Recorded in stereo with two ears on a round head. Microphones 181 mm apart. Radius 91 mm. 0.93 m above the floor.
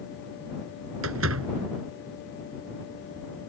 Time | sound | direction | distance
1.0 | a door slam | 80° right | ?